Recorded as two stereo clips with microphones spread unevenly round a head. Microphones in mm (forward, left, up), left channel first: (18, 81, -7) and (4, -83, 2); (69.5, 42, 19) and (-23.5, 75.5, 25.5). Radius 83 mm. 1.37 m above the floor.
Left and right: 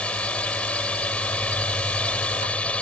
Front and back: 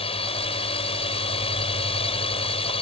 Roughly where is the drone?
Ahead.